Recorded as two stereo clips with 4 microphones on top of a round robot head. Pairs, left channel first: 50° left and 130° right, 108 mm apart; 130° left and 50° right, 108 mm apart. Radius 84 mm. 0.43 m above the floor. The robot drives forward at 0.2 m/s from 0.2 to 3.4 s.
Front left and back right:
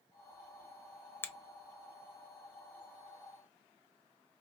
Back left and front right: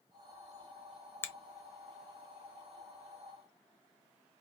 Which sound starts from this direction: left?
A finger snap, at 1.2 s.